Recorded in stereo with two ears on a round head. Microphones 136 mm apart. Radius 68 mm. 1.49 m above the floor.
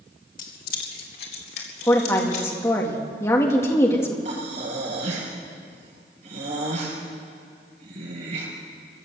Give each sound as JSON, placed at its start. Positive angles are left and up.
{"t": 0.4, "sound": "keys jangling", "side_deg": 55, "distance_m": 2.0}
{"t": 1.9, "sound": "a woman speaking", "side_deg": 20, "distance_m": 2.0}
{"t": 4.2, "sound": "breathing", "side_deg": -45, "distance_m": 5.5}